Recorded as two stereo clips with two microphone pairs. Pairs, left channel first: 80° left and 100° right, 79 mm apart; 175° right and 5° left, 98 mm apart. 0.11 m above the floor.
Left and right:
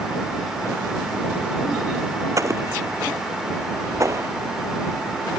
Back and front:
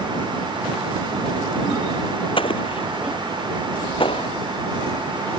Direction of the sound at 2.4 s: 150° right.